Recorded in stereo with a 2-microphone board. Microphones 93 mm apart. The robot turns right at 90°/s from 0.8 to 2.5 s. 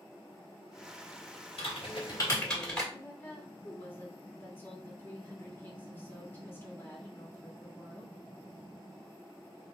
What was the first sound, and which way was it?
Typing on a keyboard, 80° left.